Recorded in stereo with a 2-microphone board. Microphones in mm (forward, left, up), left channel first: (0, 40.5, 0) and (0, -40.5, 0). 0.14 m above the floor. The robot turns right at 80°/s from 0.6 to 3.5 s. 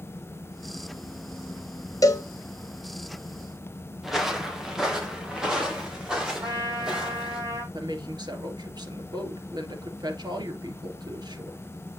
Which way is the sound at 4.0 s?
5° right (ahead or behind).